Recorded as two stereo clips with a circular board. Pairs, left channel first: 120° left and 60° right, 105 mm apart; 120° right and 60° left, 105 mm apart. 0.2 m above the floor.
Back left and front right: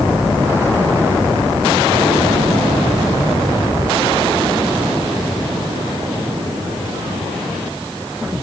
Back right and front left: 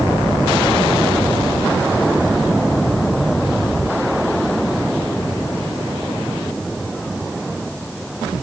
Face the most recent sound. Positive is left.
No sound to turn to.